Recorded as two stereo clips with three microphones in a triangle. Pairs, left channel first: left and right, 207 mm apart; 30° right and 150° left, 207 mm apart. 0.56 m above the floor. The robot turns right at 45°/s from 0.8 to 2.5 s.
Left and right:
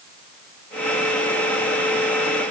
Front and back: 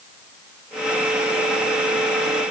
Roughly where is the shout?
I don't hear a shout.